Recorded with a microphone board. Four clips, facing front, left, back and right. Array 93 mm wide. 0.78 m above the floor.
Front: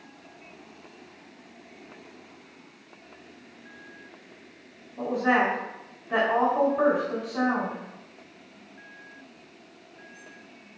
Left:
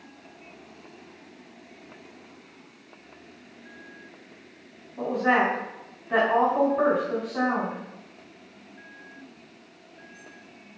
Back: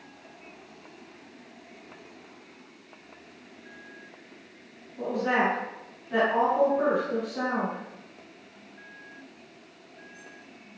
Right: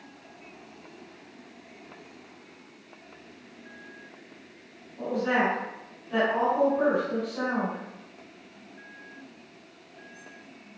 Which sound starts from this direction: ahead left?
A woman speaking, at 5.0 s.